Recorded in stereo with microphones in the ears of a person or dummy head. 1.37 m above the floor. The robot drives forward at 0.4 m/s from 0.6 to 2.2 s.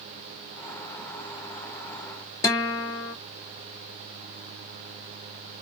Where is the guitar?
15° left (ahead or behind), 0.5 m.